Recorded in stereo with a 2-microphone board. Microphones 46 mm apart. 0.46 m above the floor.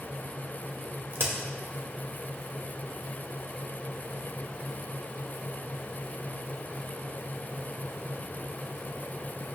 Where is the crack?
55° right (ahead or behind), 2.0 m.